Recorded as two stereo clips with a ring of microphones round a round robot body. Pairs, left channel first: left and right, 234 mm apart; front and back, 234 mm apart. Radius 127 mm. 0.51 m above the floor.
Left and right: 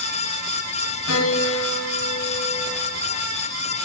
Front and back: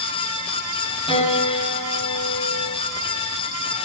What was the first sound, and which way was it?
A piano, 70° left.